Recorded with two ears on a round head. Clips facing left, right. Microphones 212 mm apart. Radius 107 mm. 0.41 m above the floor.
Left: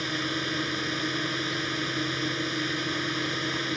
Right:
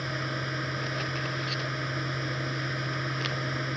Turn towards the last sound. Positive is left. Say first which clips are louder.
# left 4 dB
turn(degrees=45)  # may be behind; listen again after turning